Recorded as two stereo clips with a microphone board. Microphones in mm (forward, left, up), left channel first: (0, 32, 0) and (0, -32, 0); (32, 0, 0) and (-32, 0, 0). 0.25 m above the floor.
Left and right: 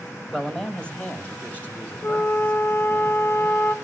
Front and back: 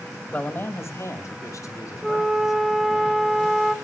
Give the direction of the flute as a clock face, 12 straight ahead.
9 o'clock.